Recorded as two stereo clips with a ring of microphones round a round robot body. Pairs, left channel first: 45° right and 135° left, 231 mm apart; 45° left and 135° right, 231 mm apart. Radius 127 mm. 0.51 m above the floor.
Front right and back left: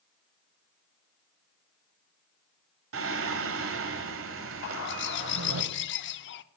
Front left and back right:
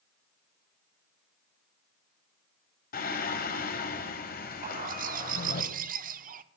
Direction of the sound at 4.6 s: 80° right.